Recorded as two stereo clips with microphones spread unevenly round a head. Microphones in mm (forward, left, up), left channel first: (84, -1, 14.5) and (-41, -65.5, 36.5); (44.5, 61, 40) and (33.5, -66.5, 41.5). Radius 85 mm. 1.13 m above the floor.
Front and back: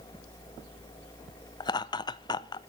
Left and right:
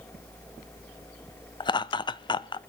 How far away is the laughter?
About 0.7 m.